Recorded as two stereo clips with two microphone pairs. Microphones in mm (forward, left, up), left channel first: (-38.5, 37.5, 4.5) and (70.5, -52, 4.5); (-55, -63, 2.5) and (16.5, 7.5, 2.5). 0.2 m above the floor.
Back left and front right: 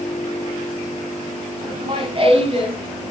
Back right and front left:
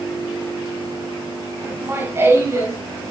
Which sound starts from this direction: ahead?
Laughter, at 1.7 s.